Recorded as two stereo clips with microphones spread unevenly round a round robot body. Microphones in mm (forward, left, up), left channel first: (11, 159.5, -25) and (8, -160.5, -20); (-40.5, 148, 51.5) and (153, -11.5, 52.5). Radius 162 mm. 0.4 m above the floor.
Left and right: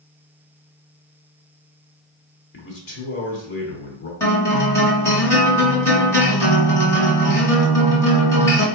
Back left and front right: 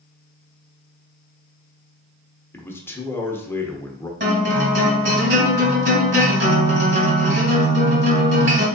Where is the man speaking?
65° left, 1.1 m.